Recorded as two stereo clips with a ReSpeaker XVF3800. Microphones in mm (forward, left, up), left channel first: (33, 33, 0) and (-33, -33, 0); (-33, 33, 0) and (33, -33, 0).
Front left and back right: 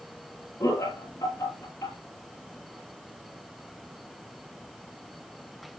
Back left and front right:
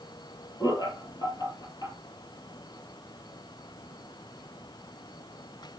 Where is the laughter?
100° left, 3 m.